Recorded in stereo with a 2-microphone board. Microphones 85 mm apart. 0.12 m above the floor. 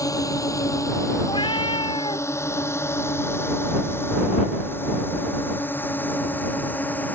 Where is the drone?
45° left (ahead or behind); by 7.2 s 20° left (ahead or behind).